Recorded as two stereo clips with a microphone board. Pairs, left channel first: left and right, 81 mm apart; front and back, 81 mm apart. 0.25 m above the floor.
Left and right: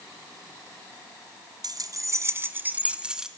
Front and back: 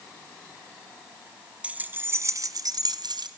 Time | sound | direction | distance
1.6 | keys jangling | 110° right | 1.3 m